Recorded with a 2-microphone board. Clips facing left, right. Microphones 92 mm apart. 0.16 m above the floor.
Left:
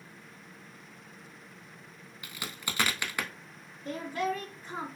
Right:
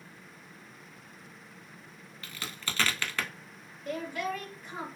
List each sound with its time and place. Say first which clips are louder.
2.2 s a crack: even; 15° left (ahead or behind), 0.5 m
3.9 s a woman speaking: left 2 dB; 35° left (ahead or behind), 1.4 m